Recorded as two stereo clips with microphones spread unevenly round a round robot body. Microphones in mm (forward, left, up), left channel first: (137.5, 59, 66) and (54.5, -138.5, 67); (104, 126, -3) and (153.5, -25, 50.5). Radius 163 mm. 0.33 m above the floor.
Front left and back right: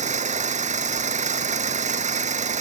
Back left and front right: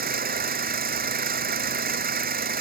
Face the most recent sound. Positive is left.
turn(degrees=-55)